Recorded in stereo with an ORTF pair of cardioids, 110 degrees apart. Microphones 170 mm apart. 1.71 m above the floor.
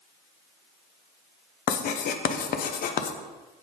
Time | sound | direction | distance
1.7 | writing | 55° left | 0.8 m